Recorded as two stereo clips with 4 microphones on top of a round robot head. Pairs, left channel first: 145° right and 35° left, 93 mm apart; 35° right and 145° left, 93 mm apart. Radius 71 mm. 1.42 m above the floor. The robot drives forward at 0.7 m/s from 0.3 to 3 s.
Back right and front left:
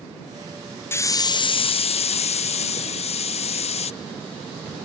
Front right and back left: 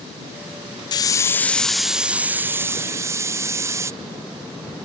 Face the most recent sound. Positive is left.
turn(degrees=-150)